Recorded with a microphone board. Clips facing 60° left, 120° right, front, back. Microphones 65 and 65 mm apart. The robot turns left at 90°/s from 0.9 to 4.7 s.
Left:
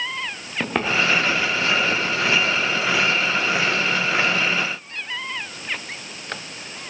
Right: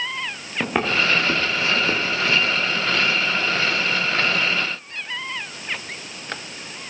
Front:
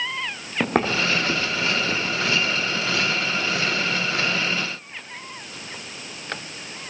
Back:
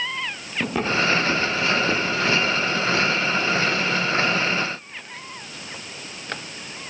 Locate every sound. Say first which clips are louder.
0.6 s footsteps: even, front 1 dB; 35° right, 5 m; by 2.6 s 170° left, 5.5 m